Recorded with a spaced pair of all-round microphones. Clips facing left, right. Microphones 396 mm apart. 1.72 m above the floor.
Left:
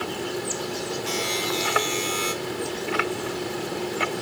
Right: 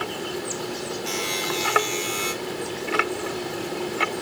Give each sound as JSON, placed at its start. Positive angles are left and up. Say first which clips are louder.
{"t": 1.1, "sound": "a buzzer", "louder": "left 1 dB", "side_deg": -30, "distance_m": 4.0}